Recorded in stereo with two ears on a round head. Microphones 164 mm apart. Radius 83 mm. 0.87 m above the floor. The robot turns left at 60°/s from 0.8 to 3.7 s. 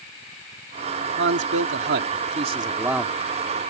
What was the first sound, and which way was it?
A man speaking, 65° right.